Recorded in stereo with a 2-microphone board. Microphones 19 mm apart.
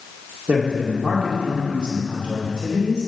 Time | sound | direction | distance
0.5 | a man speaking | 60° right (ahead or behind) | 2 m